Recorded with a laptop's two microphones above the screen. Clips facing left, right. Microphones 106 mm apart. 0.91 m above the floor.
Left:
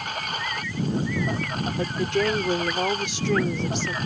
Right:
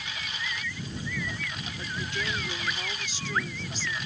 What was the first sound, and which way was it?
A lawn mower, 50° left (ahead or behind).